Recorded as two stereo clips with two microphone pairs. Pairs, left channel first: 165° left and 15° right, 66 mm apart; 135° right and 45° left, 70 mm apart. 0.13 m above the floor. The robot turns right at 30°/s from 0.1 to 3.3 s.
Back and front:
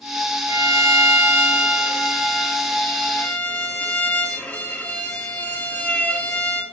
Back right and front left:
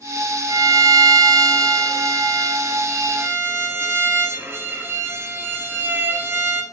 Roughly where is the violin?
Ahead.